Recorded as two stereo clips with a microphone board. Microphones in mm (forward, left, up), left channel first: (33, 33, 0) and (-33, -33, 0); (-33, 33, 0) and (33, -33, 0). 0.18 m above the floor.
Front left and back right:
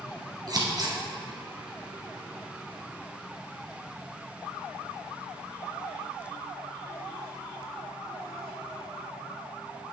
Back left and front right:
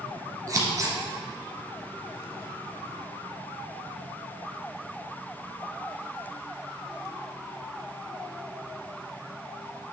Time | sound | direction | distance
0.5 | scissors | 95° right | 1.6 m